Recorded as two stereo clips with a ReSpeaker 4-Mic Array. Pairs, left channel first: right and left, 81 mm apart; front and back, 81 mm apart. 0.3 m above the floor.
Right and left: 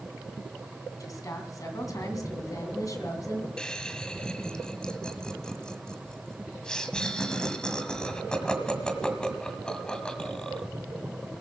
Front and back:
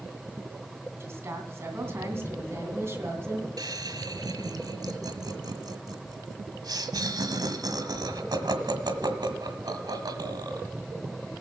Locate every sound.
1.0 s a woman speaking: 125° right, 2.5 m
3.6 s laughter: 165° right, 1.6 m